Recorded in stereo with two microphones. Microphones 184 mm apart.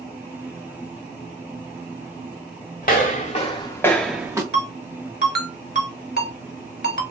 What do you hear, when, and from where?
2.8 s footsteps: 50° left (ahead or behind), 1.2 m; by 4.4 s 20° right (ahead or behind), 0.8 m
4.5 s a ringtone: 65° right (ahead or behind), 1.1 m